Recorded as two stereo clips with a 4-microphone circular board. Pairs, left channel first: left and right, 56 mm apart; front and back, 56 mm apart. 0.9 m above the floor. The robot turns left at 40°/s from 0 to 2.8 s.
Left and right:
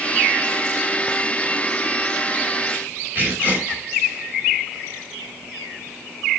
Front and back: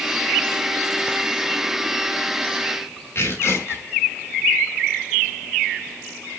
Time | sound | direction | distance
3.1 | tearing paper | 35° right | 5.5 m